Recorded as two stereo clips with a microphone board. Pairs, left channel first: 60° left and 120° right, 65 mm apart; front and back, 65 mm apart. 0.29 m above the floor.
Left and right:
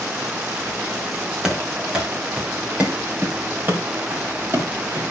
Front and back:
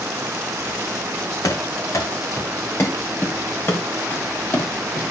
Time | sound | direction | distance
1.4 | running footsteps | 40° right | 4 m